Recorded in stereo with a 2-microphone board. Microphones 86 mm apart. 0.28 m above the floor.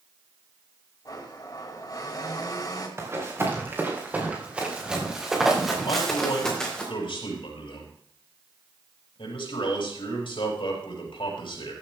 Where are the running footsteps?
30° right (ahead or behind), 4 m; by 6.8 s 10° left (ahead or behind), 4 m.